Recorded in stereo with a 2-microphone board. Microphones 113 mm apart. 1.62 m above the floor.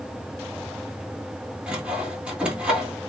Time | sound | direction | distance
1.7 | sawing | 10° right (ahead or behind) | 1.8 m